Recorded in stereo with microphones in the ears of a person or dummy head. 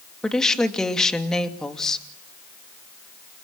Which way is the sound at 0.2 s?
Centre (ahead or behind).